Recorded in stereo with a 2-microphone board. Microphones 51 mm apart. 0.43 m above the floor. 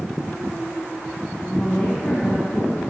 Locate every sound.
1.5 s a woman speaking: 10° left (ahead or behind), 4 m